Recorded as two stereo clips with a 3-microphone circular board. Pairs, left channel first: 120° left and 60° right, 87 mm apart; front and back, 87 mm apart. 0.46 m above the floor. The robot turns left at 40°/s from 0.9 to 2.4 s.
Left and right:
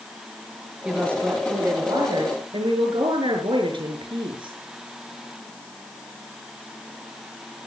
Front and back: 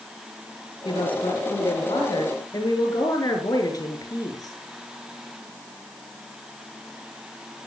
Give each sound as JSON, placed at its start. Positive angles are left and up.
{"t": 0.8, "sound": "a woman speaking", "azimuth_deg": 15, "distance_m": 6.5}